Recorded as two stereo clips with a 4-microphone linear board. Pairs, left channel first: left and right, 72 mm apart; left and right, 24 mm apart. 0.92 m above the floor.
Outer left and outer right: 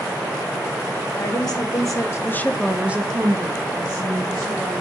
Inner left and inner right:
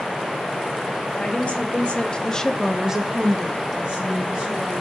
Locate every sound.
1.2 s a woman speaking: 65° left (ahead or behind), 1.6 m; by 4.8 s 70° right (ahead or behind), 2 m